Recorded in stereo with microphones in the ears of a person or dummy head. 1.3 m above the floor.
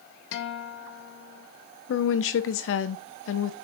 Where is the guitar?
75° left (ahead or behind), 0.9 m.